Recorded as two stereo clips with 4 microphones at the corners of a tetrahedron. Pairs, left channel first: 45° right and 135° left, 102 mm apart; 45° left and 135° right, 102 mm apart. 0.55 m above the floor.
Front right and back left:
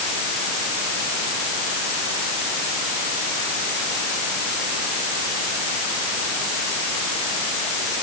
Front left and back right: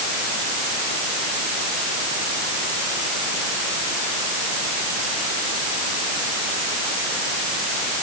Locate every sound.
Only background noise.